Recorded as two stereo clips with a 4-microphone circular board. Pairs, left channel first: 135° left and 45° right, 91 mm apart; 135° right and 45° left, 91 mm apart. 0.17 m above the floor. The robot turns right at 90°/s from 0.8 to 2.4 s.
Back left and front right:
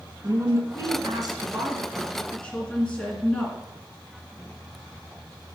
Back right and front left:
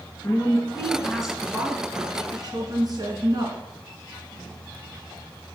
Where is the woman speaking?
80° right, 2 m; by 3.6 s 60° left, 2 m.